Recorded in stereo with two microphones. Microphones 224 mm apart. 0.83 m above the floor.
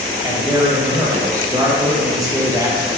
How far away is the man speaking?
About 1.0 m.